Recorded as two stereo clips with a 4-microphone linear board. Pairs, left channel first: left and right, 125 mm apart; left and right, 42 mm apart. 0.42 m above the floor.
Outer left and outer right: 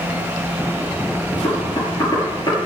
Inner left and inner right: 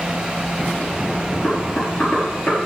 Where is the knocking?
35° left (ahead or behind), 6.5 m.